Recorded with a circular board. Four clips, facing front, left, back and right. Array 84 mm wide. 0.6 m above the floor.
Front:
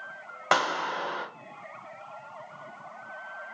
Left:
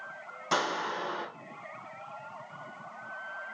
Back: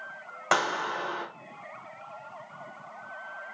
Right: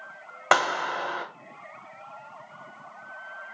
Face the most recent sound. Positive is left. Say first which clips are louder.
# right 7 dB, front 1 dB
turn(degrees=-85)